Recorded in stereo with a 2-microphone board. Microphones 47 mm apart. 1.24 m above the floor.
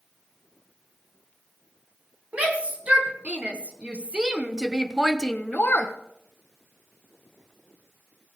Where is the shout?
30° right (ahead or behind), 2.5 m; by 5.9 s 40° left (ahead or behind), 0.7 m.